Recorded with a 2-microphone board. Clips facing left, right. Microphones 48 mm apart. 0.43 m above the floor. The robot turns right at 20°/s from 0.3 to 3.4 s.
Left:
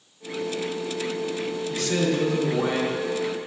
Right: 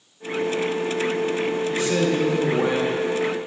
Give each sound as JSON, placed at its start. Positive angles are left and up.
{"t": 1.7, "sound": "a man speaking", "side_deg": -20, "distance_m": 0.9}